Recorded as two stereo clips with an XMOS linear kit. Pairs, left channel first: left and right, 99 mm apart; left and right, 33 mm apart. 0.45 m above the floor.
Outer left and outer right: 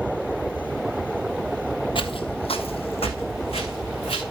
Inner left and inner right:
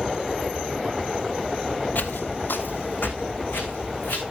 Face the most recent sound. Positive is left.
turn(degrees=75)  # may be behind; listen again after turning